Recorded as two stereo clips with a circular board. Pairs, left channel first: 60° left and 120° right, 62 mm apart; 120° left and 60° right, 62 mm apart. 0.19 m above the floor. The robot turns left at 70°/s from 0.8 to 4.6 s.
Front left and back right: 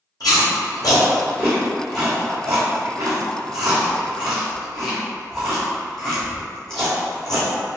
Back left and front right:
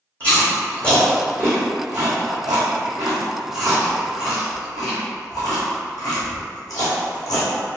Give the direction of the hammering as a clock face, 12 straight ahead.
No hammering in this recording.